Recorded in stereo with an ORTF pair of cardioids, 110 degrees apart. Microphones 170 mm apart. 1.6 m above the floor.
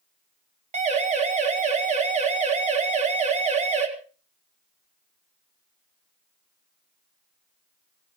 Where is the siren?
40° right, 4 m.